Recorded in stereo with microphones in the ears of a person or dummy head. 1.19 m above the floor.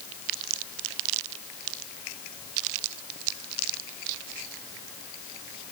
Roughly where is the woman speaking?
No woman speaking in this recording.